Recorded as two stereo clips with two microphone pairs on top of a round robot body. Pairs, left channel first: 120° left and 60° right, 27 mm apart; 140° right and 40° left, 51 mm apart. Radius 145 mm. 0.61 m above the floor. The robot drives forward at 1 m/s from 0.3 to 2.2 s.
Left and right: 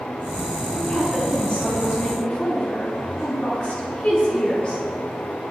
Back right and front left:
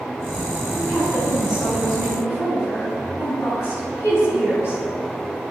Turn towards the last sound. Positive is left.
turn(degrees=180)